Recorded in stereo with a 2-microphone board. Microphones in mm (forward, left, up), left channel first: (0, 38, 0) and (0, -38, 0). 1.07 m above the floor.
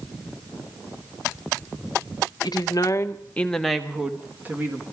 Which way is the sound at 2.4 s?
65° left (ahead or behind).